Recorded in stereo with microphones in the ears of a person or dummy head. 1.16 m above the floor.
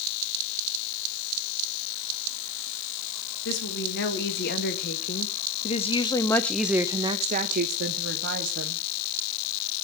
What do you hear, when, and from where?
3.5 s a woman speaking: 65° left (ahead or behind), 2.5 m; by 8.8 s 65° right (ahead or behind), 1.6 m